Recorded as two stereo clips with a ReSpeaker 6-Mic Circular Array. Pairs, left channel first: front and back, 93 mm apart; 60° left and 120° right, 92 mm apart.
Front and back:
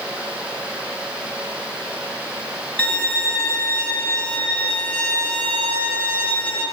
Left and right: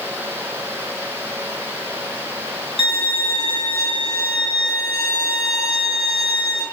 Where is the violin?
75° left, 6.5 m.